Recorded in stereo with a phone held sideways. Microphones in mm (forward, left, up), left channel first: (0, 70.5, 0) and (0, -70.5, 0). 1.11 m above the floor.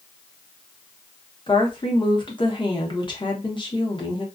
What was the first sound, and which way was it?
A woman speaking, 35° left (ahead or behind).